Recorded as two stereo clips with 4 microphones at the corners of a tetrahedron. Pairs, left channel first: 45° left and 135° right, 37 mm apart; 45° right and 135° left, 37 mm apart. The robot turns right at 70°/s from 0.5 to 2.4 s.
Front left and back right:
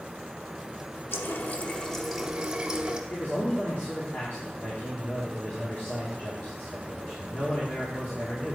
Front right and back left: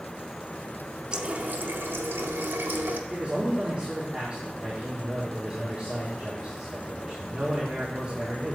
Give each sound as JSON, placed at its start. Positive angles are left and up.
{"t": 1.1, "sound": "a running tap", "azimuth_deg": 65, "distance_m": 0.7}
{"t": 3.1, "sound": "a man speaking", "azimuth_deg": 75, "distance_m": 1.7}